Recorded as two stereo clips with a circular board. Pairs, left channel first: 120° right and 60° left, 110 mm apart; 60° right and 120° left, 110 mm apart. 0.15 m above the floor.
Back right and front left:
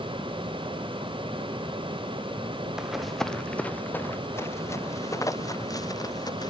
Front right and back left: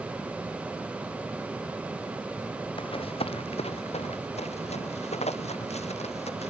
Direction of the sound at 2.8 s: 25° right.